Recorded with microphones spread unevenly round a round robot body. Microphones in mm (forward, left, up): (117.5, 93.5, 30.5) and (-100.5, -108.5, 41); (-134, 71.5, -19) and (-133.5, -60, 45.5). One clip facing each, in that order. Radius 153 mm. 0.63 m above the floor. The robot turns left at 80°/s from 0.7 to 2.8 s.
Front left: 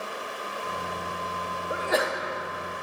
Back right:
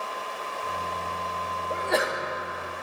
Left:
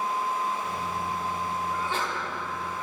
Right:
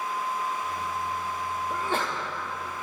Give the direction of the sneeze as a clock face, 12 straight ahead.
1 o'clock.